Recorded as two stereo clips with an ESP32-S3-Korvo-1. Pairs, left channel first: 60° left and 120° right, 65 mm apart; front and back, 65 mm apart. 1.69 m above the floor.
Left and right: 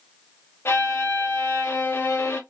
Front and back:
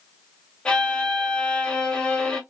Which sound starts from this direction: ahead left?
A violin, at 0.7 s.